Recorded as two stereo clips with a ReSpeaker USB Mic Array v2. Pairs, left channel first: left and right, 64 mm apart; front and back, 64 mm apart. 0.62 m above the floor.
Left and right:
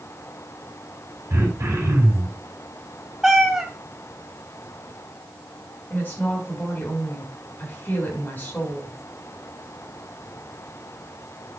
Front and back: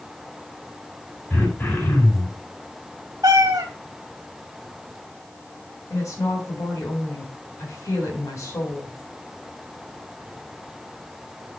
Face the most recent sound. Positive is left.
turn(degrees=30)